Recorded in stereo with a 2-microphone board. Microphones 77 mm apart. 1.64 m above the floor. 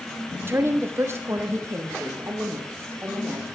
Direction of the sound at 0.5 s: 30° right (ahead or behind).